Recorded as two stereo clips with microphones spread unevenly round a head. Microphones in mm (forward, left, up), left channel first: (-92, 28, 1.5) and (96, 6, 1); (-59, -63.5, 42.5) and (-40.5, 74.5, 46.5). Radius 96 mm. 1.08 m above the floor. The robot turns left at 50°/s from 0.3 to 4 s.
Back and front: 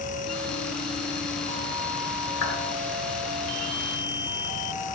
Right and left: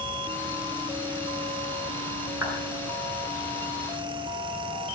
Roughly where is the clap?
Behind.